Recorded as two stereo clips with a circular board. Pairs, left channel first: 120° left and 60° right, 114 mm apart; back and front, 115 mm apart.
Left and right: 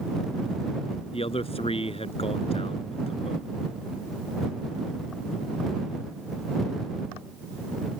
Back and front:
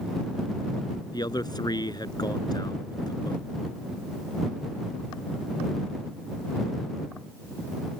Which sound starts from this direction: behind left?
A man speaking, at 1.1 s.